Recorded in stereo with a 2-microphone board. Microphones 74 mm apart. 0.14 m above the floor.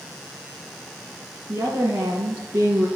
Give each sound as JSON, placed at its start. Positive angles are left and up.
{"t": 1.5, "sound": "a woman speaking", "side_deg": -25, "distance_m": 1.6}